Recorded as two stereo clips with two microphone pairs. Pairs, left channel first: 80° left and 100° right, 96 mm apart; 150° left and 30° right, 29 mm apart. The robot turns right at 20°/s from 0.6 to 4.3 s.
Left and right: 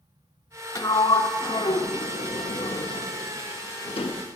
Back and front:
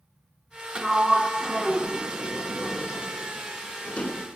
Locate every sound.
0.8 s a sliding door: 25° left, 0.6 m; by 4.2 s 95° left, 0.6 m